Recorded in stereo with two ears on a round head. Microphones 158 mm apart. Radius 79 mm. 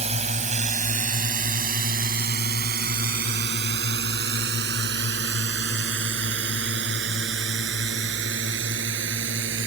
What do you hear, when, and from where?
0.0 s a drone: 40° right (ahead or behind); by 9.7 s 85° right